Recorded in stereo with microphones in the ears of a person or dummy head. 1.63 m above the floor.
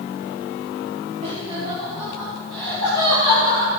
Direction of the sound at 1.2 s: 40° right (ahead or behind).